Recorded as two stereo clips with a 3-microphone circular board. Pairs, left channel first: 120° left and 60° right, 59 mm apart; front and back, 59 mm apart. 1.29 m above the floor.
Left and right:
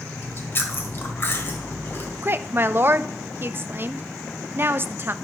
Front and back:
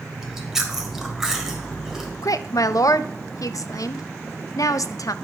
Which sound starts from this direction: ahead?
A woman speaking, at 2.2 s.